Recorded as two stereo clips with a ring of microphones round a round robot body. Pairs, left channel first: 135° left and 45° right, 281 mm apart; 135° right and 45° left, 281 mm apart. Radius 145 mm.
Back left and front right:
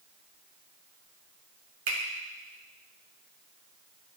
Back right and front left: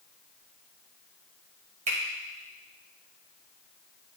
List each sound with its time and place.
1.9 s a finger snap: 20° right, 1.9 m